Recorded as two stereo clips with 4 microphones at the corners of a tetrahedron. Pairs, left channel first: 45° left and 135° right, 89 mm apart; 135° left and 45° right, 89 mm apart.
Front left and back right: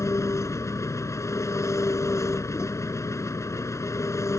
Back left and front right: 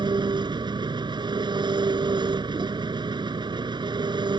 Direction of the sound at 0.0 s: 10° right.